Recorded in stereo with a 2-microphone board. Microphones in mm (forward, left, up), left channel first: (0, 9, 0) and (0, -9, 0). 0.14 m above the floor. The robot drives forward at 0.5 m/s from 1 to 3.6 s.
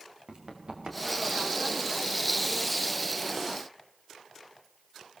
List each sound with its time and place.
0.3 s running footsteps: 60° right (ahead or behind), 5 m; by 1.5 s 55° right (ahead or behind), 3.5 m